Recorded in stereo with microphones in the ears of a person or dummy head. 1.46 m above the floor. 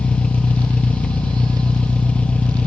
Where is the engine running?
10° left (ahead or behind), 1.6 m.